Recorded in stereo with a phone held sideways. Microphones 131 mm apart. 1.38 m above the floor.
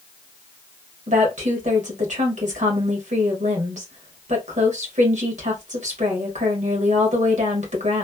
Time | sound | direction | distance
1.1 | a woman speaking | 75° right (ahead or behind) | 1.4 m